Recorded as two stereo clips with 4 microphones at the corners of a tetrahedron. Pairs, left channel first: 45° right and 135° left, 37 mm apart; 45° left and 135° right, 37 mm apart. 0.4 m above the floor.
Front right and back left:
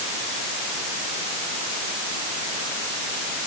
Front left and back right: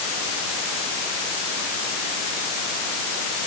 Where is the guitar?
I don't hear a guitar.